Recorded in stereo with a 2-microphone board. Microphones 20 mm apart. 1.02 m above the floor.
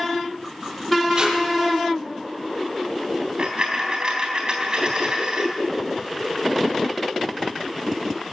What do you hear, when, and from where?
1.1 s tape being pulled: 45° right (ahead or behind), 6.5 m
3.4 s a dropped coin: 45° right (ahead or behind), 3.5 m